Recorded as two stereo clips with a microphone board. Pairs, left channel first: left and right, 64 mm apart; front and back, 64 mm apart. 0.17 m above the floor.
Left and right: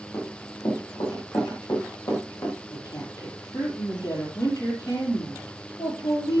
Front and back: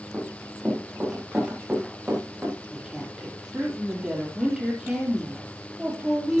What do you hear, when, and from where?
0.1 s running footsteps: 95° left, 7.5 m; by 2.6 s 105° left, 8 m
2.7 s a woman speaking: 105° left, 6 m